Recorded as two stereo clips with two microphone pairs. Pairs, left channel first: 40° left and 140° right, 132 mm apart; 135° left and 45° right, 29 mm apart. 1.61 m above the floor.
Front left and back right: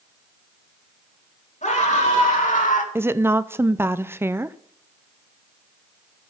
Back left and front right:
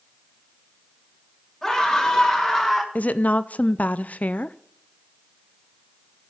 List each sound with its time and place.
1.6 s a scream: 55° left, 3 m; by 2.9 s 45° left, 1.3 m
3.0 s a woman speaking: 150° left, 0.5 m